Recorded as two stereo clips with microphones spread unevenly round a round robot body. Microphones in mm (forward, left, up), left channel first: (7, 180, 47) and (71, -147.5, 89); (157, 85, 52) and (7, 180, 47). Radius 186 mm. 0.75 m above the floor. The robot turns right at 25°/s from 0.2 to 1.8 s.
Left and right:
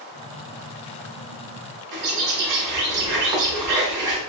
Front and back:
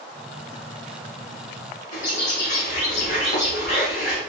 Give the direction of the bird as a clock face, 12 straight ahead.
2 o'clock.